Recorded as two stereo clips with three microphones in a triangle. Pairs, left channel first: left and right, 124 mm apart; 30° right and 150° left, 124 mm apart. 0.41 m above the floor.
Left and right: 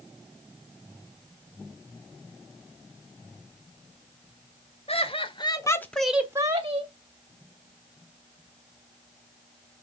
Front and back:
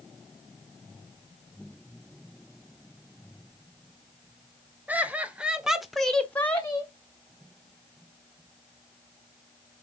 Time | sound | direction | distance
4.9 | laughter | 75° left | 1.8 m